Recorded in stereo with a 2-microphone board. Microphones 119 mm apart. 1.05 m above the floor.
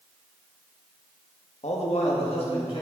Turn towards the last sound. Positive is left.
turn(degrees=50)  # may be behind; listen again after turning